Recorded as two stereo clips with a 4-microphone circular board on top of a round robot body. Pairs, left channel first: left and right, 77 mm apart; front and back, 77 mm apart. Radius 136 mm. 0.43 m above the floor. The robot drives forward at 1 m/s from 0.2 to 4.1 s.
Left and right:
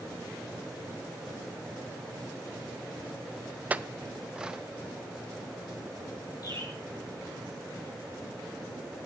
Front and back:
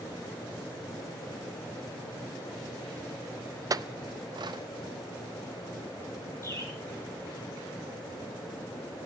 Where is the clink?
155° right, 0.5 m; by 4.6 s 165° right, 0.8 m.